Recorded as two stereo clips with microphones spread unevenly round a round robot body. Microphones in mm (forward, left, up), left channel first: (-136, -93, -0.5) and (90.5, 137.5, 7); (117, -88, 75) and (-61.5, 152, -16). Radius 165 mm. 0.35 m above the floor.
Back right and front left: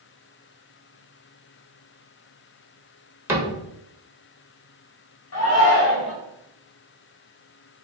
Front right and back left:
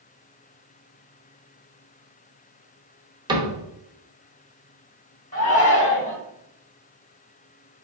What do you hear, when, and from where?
3.3 s a cupboard door: 125° left, 1.2 m
5.3 s a shout: 130° right, 2.0 m